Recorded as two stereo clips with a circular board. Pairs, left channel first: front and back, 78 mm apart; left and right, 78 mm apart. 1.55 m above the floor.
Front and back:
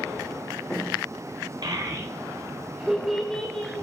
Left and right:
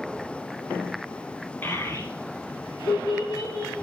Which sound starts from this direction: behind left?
A child speaking, at 1.6 s.